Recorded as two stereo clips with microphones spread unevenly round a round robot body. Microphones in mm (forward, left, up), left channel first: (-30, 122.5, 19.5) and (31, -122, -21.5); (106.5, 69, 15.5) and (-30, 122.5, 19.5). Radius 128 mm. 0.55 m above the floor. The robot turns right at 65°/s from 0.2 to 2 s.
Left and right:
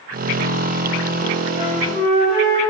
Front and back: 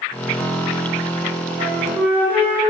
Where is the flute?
150° right, 3.5 m; by 2.6 s 120° right, 3.5 m.